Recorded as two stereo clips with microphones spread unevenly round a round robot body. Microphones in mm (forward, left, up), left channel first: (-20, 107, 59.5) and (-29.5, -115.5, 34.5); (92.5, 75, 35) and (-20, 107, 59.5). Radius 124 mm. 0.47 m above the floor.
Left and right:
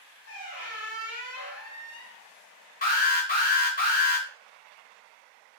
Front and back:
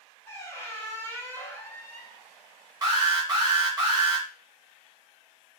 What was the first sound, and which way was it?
A squeak, 55° left.